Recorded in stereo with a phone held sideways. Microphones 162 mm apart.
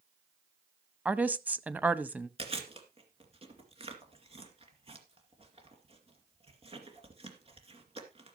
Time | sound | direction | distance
1.1 | a woman speaking | 10° right (ahead or behind) | 0.7 m
2.4 | chewing | 35° right (ahead or behind) | 2 m